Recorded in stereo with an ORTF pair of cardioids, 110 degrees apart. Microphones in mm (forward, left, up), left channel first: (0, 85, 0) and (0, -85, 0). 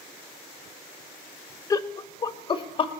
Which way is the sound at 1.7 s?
20° left.